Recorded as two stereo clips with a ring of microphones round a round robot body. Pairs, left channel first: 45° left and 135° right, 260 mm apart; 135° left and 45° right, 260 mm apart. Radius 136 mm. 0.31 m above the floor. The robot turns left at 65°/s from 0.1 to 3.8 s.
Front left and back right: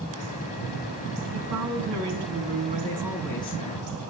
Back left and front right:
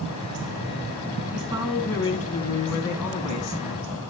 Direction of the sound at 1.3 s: 105° right.